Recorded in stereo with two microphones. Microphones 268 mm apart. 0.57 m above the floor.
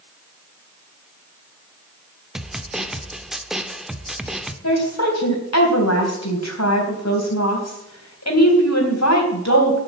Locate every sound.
2.4 s a snare drum: centre (ahead or behind), 1.0 m
4.6 s a woman speaking: 75° left (ahead or behind), 3.5 m